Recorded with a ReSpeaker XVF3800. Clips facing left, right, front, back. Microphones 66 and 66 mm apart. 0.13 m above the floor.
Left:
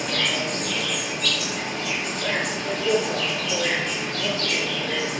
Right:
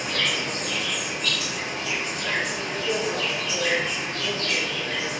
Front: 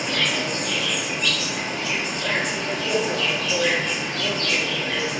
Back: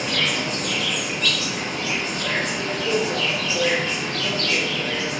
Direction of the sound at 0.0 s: 80° left.